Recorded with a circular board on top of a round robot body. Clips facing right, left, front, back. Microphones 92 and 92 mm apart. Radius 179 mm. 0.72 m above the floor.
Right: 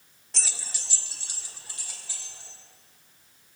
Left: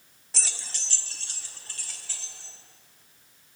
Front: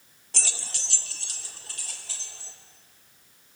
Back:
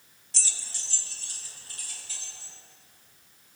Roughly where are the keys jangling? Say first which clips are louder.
Even, front 6 dB; ahead.